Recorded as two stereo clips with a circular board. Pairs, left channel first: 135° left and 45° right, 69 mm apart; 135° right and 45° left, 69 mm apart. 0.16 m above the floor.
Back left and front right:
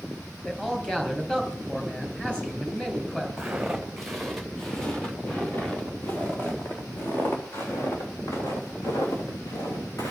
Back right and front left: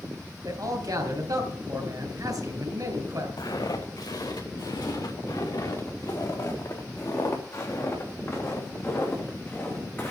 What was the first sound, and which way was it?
A man speaking, 60° left.